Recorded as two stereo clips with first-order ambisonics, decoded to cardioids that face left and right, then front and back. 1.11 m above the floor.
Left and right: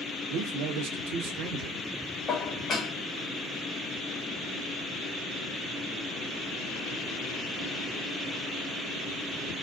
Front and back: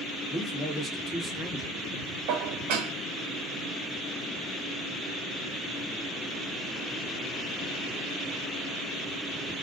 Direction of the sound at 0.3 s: 75° right.